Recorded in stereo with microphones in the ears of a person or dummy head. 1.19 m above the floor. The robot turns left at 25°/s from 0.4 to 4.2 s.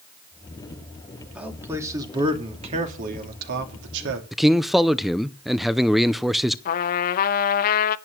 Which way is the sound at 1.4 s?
5° right.